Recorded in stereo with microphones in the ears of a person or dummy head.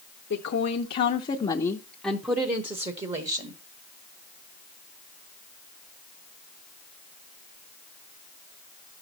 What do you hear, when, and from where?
0.3 s a woman speaking: 65° left (ahead or behind), 1.2 m; by 3.6 s 40° right (ahead or behind), 1.4 m